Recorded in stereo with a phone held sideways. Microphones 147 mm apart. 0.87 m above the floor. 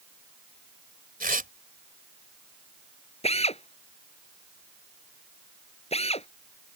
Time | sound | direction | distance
1.2 | tearing paper | 80° right | ?
3.2 | a drill | 45° left (ahead or behind) | ?